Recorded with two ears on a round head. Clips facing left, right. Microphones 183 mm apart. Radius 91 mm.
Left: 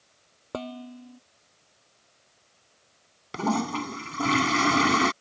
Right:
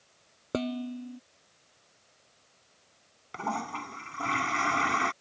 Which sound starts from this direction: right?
Dishes clattering, at 0.5 s.